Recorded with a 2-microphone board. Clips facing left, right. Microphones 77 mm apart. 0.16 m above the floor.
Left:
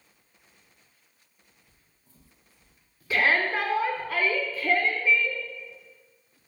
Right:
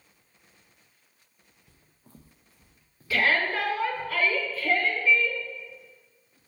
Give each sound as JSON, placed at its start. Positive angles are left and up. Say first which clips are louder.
{"t": 1.7, "sound": "footsteps", "louder": "right 8 dB", "side_deg": -75, "distance_m": 0.8}
{"t": 3.1, "sound": "a shout", "louder": "left 1 dB", "side_deg": 20, "distance_m": 1.6}